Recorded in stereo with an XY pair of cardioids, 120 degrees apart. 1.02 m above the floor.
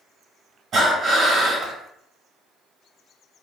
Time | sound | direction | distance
0.7 | breathing | 40° right | 1.4 m